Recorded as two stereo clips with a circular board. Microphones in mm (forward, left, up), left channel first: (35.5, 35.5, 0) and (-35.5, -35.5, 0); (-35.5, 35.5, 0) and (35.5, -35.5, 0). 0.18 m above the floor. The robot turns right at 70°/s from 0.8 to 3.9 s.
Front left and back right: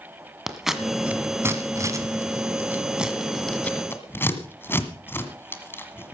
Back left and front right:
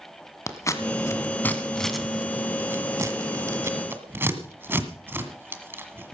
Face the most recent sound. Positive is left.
turn(degrees=0)